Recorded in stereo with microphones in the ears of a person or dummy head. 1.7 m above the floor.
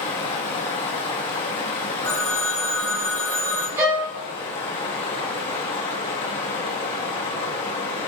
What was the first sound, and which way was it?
Running water, 30° left (ahead or behind).